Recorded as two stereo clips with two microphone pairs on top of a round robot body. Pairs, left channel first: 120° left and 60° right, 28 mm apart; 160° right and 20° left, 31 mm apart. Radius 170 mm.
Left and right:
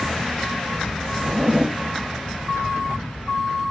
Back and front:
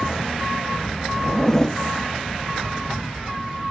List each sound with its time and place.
1.2 s a zipper: 95° right, 0.7 m